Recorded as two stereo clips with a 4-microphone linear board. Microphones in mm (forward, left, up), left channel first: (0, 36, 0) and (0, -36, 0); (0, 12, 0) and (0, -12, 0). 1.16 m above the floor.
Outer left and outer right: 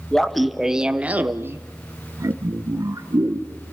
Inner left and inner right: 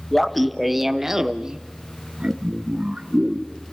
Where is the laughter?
5° left (ahead or behind), 1.0 m; by 3.7 s 55° right (ahead or behind), 1.5 m.